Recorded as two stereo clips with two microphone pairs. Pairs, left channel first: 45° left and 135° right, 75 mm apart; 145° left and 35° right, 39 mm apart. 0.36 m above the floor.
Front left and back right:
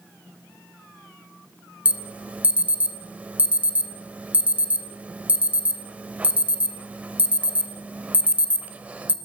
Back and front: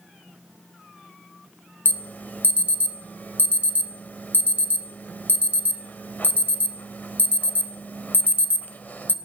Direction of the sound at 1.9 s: 160° left.